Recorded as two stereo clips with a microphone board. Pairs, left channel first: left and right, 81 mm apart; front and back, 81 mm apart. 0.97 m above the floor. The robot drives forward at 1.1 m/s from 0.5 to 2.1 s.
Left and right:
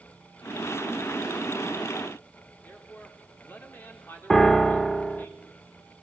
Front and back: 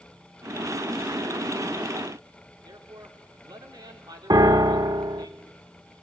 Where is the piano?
175° left, 0.9 m.